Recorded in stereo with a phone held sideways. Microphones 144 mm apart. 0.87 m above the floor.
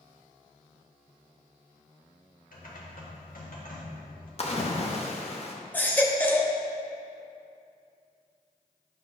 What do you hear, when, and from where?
2.5 s typing on a keyboard: 65° left (ahead or behind), 1.5 m
4.4 s a splash: 45° left (ahead or behind), 0.8 m
5.7 s a baby crying: 10° left (ahead or behind), 0.7 m